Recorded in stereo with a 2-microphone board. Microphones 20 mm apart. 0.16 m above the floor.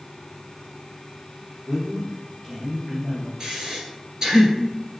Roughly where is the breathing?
Right.